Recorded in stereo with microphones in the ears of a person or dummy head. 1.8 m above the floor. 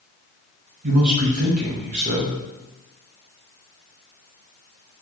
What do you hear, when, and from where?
0.8 s a man speaking: 35° right (ahead or behind), 0.7 m